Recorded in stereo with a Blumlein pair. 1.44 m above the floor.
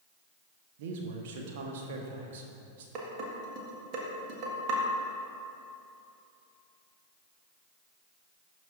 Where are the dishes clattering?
40° right, 1.4 m.